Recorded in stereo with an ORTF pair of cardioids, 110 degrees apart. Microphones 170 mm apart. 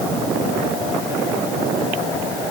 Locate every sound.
Only background noise.